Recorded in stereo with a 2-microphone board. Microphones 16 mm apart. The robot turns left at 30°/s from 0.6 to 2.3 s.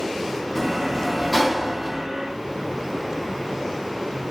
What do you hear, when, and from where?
0.6 s a sliding door: 25° left, 0.7 m; by 2.1 s 20° right, 0.7 m